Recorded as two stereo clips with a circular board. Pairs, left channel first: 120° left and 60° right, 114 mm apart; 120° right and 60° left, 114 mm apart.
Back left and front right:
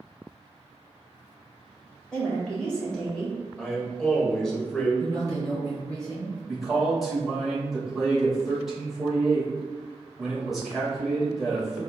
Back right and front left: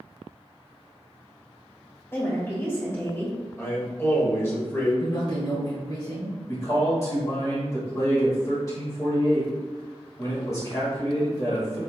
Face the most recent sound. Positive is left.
turn(degrees=-145)